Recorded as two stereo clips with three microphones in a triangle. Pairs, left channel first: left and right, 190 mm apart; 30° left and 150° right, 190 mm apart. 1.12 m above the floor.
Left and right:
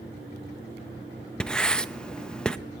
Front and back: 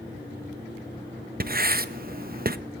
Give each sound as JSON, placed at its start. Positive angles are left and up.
{"t": 1.4, "sound": "writing", "azimuth_deg": 175, "distance_m": 0.7}